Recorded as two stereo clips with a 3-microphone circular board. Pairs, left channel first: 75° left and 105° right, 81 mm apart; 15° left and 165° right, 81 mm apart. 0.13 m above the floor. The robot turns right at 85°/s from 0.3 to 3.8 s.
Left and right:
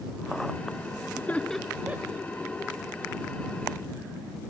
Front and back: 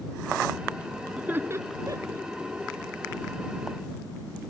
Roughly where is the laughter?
Behind left.